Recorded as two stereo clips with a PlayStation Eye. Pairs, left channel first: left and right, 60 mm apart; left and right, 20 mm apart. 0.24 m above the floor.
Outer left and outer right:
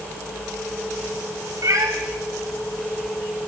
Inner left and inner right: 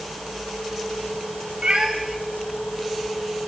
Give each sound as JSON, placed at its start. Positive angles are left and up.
{"t": 1.6, "sound": "a cat meowing", "side_deg": -60, "distance_m": 2.5}